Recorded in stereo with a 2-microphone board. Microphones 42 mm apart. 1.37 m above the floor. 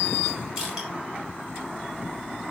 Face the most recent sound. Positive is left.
turn(degrees=-15)  # may be behind; listen again after turning